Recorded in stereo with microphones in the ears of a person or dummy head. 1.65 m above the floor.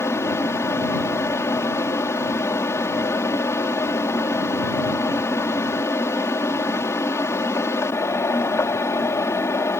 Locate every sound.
0.0 s a fan: 10° left (ahead or behind)